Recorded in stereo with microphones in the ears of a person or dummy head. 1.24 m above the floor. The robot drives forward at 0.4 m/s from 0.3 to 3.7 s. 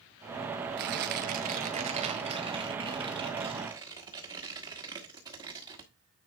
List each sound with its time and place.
0.8 s tearing paper: 40° right (ahead or behind), 0.7 m; by 5.9 s 15° right (ahead or behind), 1.5 m